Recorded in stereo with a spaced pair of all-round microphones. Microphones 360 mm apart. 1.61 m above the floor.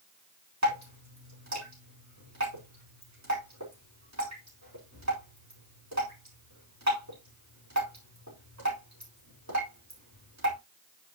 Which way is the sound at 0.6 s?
50° right (ahead or behind).